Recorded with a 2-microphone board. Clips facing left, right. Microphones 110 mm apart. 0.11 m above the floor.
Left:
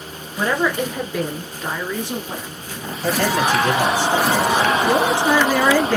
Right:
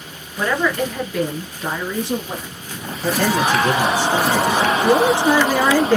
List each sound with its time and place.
0.4 s a woman speaking: 25° left (ahead or behind), 1.1 m; by 2.6 s 25° right (ahead or behind), 1.4 m
3.0 s a man speaking: 35° right (ahead or behind), 2.5 m
4.8 s a man speaking: 20° right (ahead or behind), 1.5 m